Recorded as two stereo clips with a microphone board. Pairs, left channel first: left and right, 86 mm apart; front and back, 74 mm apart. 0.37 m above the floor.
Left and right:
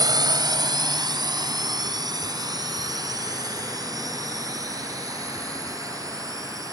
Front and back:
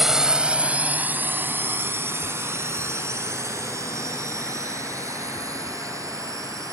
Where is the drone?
95° right; by 6.7 s 140° right.